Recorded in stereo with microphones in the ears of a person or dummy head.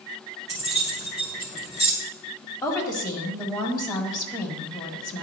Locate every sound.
0.5 s keys jangling: 30° left (ahead or behind), 2.5 m
2.6 s a woman speaking: 20° left (ahead or behind), 1.7 m